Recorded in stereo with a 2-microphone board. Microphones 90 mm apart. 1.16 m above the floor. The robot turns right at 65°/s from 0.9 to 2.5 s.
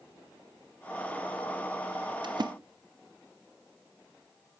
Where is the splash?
55° right (ahead or behind), 1.0 m; by 2.5 s 50° right (ahead or behind), 1.0 m.